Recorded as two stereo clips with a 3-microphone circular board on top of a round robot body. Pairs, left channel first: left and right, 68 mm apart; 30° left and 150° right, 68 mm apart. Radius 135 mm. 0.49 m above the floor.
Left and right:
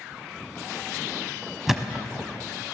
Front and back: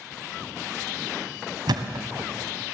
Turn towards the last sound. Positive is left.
turn(degrees=-175)